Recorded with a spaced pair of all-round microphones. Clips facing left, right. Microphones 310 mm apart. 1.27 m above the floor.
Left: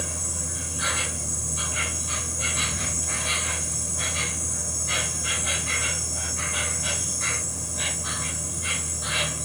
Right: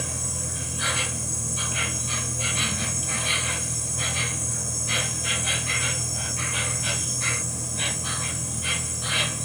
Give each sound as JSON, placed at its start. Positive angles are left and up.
{"t": 0.0, "sound": "an insect", "side_deg": -40, "distance_m": 2.5}